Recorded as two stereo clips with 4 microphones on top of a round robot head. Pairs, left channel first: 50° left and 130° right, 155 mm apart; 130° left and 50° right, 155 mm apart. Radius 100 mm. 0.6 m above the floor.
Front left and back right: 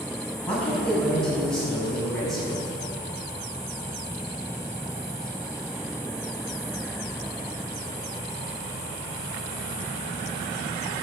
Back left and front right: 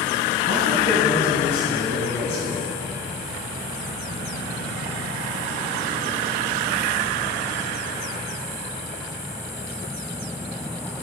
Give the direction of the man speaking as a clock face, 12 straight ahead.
8 o'clock.